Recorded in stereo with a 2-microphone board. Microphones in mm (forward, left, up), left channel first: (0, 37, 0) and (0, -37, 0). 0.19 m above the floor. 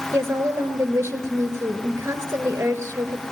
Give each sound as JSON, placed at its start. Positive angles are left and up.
{"t": 0.1, "sound": "a woman speaking", "side_deg": -35, "distance_m": 3.5}